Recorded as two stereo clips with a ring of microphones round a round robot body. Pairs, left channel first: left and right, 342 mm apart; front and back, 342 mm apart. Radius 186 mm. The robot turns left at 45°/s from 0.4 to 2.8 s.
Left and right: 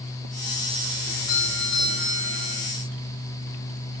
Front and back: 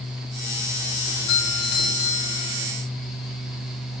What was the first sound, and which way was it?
A doorbell, 45° left.